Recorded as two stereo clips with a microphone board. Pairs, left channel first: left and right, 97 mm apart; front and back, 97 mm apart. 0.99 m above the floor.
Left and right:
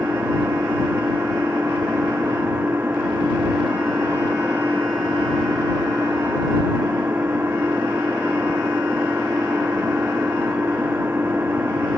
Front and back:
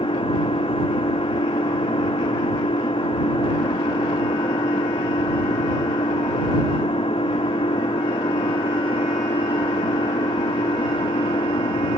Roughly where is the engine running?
Ahead.